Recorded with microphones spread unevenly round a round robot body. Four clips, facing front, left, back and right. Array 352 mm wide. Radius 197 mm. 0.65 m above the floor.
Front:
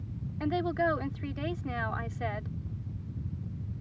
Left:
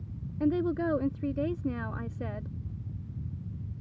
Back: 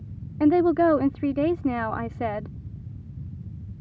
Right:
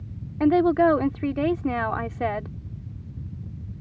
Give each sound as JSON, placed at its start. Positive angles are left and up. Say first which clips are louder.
{"t": 0.4, "sound": "a woman speaking", "louder": "right 10 dB, back 11 dB", "azimuth_deg": -125}